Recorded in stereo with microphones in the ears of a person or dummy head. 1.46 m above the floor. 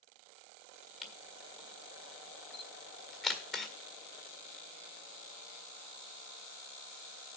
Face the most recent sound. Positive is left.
turn(degrees=5)  # may be behind; listen again after turning